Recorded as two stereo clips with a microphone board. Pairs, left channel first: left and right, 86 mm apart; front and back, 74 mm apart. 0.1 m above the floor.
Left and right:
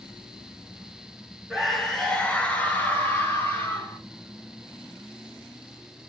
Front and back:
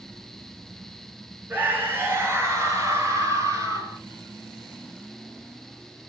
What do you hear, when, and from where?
1.5 s a scream: straight behind, 1.7 m; by 4.0 s 145° left, 3 m